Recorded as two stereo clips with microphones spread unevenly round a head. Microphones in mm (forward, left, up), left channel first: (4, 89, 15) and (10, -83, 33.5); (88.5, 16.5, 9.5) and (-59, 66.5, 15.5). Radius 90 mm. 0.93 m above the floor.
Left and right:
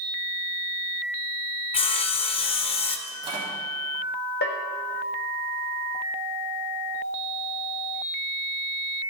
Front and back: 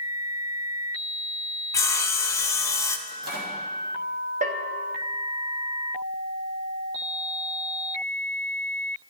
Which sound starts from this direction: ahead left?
Sawing, at 1.7 s.